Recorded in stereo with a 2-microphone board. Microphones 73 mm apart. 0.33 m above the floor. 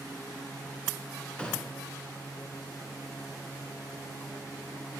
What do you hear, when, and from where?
1.4 s a gunshot: 15° left (ahead or behind), 2.5 m